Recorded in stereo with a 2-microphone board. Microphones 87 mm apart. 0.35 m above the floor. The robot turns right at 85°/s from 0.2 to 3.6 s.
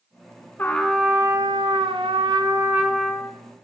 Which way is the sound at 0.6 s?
155° left.